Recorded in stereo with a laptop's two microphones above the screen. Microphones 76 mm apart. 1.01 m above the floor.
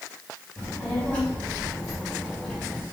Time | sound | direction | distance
0.6 | a child speaking | 30° left (ahead or behind) | 2.5 m